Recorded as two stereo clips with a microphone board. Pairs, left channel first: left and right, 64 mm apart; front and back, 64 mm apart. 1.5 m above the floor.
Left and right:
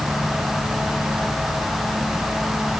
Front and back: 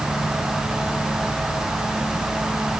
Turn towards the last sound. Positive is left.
No sound to turn to.